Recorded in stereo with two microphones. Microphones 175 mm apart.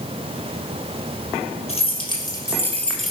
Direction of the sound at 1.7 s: 35° left (ahead or behind).